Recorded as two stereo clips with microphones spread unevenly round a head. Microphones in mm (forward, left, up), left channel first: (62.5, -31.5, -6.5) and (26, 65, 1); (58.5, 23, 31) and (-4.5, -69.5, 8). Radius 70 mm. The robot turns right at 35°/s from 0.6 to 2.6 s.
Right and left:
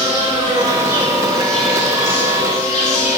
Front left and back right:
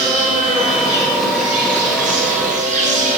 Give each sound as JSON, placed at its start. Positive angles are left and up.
{"t": 0.0, "sound": "an insect", "azimuth_deg": 175, "distance_m": 2.5}